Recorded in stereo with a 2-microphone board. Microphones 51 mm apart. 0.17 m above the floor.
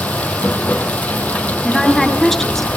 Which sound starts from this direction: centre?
A woman speaking, at 1.6 s.